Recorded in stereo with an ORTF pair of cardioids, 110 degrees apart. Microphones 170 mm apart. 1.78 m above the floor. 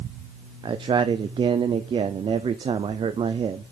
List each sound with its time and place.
0.6 s a man speaking: 30° right, 0.7 m